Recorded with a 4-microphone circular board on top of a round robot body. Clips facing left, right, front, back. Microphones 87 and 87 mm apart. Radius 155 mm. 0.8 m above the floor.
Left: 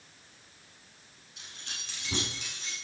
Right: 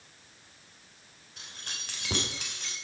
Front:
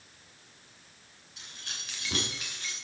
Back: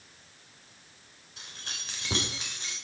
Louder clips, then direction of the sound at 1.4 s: Right 2 dB, back 2 dB; 135° right.